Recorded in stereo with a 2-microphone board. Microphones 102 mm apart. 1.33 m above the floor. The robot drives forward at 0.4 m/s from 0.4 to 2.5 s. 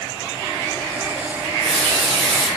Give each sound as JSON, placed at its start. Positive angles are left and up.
{"t": 1.4, "sound": "a running tap", "side_deg": 0, "distance_m": 0.7}